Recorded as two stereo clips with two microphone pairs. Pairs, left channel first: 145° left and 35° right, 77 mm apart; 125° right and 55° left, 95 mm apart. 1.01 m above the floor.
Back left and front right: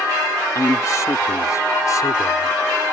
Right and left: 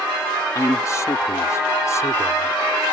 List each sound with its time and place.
0.6 s a man speaking: 175° right; by 2.6 s straight behind